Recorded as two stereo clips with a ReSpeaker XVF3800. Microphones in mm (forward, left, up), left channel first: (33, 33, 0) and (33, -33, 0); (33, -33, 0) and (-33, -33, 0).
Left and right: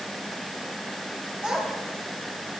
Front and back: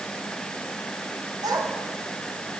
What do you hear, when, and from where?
1.4 s a child speaking: 170° right, 3 m